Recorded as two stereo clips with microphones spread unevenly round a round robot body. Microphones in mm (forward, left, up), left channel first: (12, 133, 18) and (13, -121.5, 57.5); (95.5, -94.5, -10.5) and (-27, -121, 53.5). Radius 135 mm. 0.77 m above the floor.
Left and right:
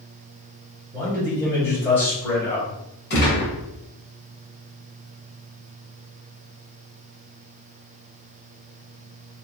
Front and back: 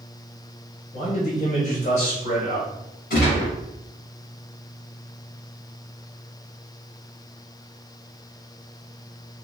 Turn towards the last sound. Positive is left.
turn(degrees=35)